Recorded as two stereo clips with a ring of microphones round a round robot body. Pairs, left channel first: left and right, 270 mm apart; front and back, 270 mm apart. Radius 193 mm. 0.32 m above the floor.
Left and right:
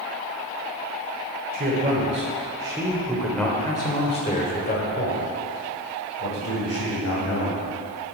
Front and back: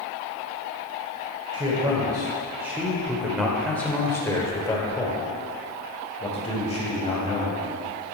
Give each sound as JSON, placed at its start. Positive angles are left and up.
{"t": 1.5, "sound": "a man speaking", "azimuth_deg": -120, "distance_m": 1.5}